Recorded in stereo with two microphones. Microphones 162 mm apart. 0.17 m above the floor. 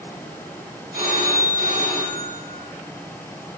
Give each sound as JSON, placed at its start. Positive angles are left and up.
{"t": 0.9, "sound": "a phone ringing", "side_deg": -10, "distance_m": 1.1}